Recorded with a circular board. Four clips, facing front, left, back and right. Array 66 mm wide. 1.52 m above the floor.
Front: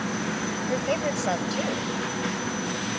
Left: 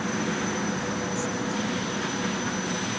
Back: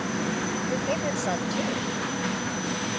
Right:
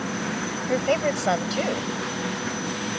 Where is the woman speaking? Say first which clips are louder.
Right 7 dB, front 3 dB; 85° right.